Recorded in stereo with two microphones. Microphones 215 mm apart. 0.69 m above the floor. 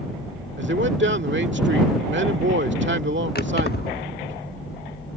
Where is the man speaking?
60° right (ahead or behind).